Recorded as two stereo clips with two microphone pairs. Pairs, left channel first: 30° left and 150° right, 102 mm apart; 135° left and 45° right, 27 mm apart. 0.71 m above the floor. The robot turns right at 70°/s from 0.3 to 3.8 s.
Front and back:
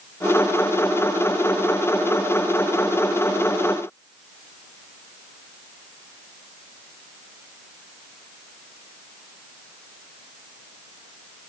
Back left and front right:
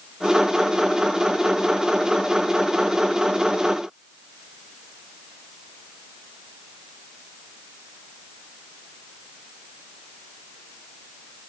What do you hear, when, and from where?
Only background noise.